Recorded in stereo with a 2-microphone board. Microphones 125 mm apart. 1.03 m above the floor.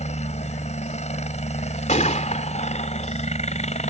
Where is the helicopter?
65° left (ahead or behind).